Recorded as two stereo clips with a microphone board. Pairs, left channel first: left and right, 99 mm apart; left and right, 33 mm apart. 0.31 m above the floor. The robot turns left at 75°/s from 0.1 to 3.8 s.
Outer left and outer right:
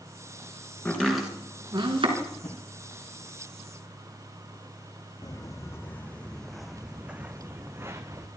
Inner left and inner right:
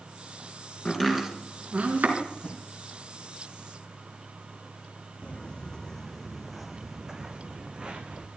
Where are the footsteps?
40° left (ahead or behind), 1.2 m; by 8.3 s 30° right (ahead or behind), 1.8 m.